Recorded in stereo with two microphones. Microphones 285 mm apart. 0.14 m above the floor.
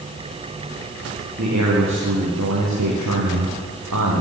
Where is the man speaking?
65° right (ahead or behind), 8 m; by 4.2 s 80° right, 7 m.